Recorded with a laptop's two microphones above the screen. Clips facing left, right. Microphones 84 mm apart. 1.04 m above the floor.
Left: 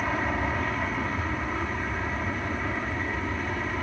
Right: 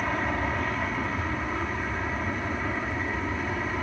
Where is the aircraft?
Centre (ahead or behind); by 3.8 s 5° right (ahead or behind).